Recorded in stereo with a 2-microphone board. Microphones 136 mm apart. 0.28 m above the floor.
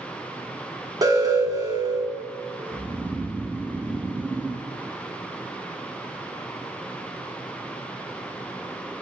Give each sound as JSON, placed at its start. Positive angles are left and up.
{"t": 1.0, "sound": "an alarm", "side_deg": -25, "distance_m": 3.5}
{"t": 2.7, "sound": "snoring", "side_deg": -10, "distance_m": 1.3}